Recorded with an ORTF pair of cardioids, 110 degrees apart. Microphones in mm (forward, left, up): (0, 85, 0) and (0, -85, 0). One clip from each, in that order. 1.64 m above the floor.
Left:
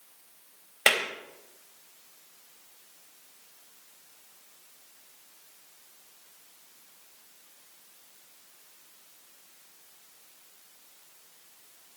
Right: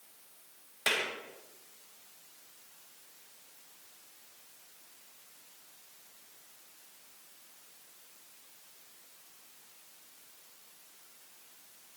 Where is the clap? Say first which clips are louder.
Left 7 dB; 50° left, 3 m.